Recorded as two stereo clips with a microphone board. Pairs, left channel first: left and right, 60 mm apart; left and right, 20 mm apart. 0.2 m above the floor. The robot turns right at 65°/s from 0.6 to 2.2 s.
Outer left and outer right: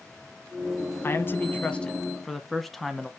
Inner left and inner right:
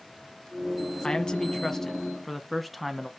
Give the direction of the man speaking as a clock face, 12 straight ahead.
9 o'clock.